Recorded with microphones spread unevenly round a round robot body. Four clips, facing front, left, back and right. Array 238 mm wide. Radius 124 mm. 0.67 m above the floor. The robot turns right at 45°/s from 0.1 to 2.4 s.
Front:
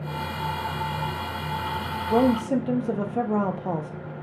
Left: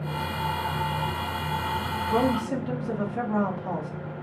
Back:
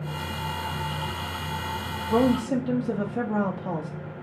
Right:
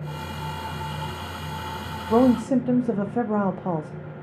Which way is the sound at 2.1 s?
70° right.